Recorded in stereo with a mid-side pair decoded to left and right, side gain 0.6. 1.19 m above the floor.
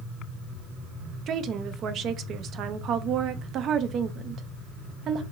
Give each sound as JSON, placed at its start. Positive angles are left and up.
{"t": 1.3, "sound": "a woman speaking", "azimuth_deg": -50, "distance_m": 0.6}